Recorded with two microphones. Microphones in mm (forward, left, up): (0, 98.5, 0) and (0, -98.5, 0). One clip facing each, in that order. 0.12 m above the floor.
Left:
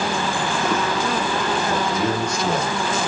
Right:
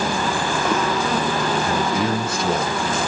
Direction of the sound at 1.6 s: 15° right (ahead or behind).